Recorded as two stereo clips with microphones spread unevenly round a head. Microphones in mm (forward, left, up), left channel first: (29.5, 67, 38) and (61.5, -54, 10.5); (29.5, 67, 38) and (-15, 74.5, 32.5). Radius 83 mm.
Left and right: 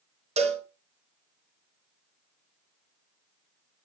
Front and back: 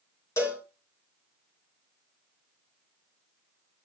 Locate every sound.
0.4 s a cowbell: 40° right, 2.5 m